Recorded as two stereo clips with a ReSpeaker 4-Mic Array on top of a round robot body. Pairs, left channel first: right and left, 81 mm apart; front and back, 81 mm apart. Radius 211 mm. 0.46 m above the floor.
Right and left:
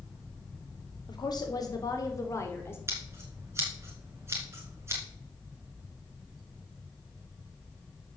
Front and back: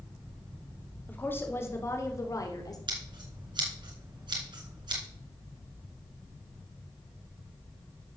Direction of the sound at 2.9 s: 150° left.